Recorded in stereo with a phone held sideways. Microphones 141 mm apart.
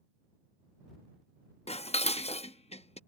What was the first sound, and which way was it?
Dishes clattering, 45° left (ahead or behind).